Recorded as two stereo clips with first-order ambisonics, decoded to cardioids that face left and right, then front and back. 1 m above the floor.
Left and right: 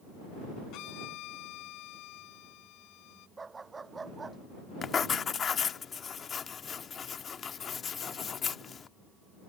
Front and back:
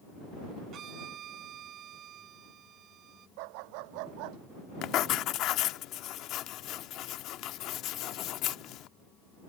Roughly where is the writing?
Ahead left.